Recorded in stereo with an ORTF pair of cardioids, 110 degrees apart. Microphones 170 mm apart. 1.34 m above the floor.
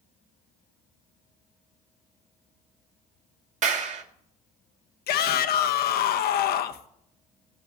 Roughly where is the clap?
Ahead right.